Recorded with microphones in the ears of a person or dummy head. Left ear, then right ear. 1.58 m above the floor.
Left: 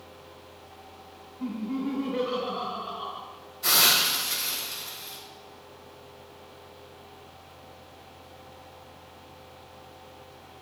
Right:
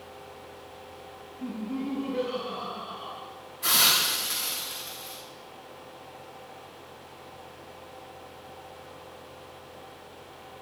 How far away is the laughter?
About 2.5 m.